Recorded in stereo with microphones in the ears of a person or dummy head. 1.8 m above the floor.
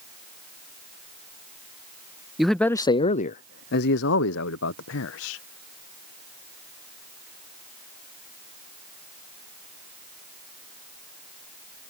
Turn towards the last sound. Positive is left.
turn(degrees=80)